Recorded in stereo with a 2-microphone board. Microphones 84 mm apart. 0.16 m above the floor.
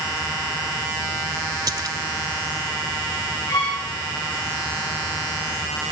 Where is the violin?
60° left (ahead or behind), 6.5 m.